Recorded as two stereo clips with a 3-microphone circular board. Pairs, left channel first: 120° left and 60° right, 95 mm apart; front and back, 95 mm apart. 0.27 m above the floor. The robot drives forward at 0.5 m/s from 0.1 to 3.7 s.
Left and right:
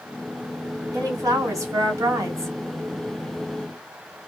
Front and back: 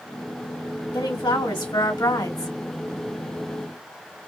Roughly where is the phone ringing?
No phone ringing in this recording.